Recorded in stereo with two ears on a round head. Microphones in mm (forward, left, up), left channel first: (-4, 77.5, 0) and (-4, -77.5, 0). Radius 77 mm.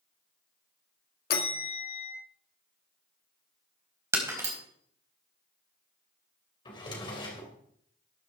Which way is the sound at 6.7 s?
25° left (ahead or behind).